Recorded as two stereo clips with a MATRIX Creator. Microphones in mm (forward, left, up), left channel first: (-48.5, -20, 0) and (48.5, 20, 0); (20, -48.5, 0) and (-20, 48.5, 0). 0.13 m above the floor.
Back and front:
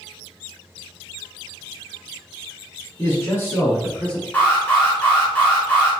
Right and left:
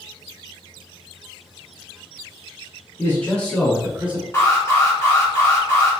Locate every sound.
3.0 s a man speaking: 120° right, 1.7 m; by 4.2 s 135° left, 1.5 m
4.3 s an alarm: 100° right, 1.4 m